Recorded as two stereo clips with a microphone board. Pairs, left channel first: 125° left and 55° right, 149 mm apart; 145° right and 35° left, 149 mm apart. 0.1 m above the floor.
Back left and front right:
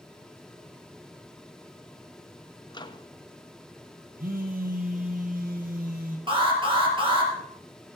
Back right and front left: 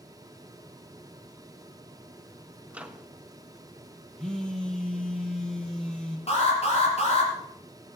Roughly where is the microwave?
Left.